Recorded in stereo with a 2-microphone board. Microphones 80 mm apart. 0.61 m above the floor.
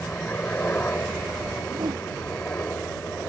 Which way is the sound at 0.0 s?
20° left (ahead or behind).